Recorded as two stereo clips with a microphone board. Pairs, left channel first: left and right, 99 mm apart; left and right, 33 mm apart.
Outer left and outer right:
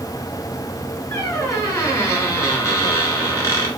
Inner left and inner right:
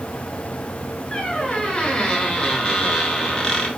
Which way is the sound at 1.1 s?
30° left (ahead or behind).